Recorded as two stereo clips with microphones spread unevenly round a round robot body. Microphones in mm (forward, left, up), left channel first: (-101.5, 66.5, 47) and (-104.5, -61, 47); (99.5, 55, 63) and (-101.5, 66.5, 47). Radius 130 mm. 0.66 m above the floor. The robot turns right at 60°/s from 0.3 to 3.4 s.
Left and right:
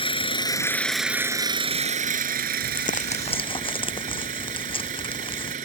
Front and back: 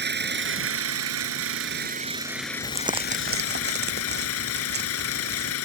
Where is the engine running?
140° left; by 5.7 s 35° right.